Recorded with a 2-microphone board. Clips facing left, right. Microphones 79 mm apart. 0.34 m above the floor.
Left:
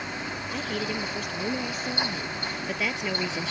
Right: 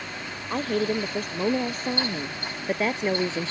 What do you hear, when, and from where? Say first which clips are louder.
0.5 s a woman speaking: right 7 dB; 40° right (ahead or behind); by 3.5 s 35° right (ahead or behind)